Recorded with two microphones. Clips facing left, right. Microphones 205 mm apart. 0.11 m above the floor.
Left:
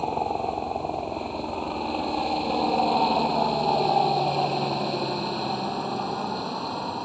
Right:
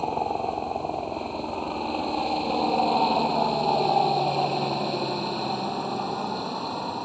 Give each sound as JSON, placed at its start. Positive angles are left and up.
{"t": 0.0, "sound": "a helicopter", "side_deg": 0}